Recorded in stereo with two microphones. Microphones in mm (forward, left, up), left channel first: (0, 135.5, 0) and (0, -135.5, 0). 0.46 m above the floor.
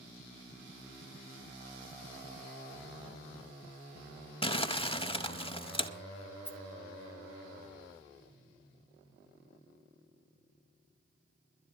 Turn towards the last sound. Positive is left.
turn(degrees=5)  # may be behind; listen again after turning